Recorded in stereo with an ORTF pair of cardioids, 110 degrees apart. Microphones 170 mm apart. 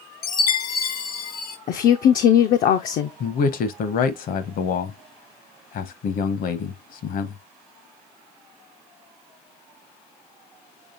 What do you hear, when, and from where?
0.2 s a chime: 65° left, 0.9 m
1.7 s a woman speaking: 55° left, 0.6 m
3.2 s a man speaking: 60° left, 1.0 m